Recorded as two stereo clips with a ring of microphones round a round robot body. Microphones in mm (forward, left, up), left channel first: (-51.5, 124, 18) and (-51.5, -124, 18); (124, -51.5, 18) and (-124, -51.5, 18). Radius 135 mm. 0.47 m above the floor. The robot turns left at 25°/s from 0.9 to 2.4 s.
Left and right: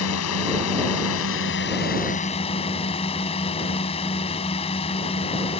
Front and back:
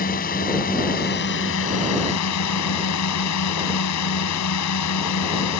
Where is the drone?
60° left; by 5.6 s 20° left.